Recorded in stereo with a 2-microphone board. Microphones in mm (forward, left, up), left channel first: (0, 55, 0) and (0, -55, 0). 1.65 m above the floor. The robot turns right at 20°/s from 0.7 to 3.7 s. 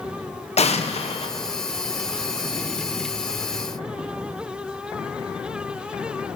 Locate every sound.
0.6 s an explosion: 75° left (ahead or behind), 1.0 m; by 1.3 s 65° left (ahead or behind), 1.0 m